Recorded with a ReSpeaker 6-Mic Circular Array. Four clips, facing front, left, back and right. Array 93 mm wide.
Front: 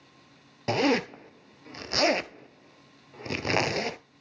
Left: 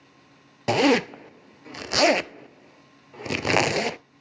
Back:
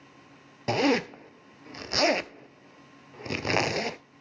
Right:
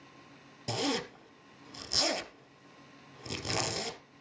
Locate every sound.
0.7 s a zipper: 90° left, 0.7 m